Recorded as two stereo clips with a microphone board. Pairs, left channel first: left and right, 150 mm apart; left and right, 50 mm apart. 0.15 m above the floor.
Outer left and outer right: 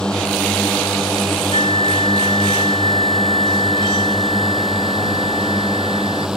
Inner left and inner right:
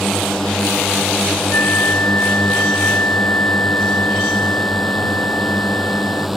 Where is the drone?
5° left (ahead or behind); by 6.4 s 5° right (ahead or behind).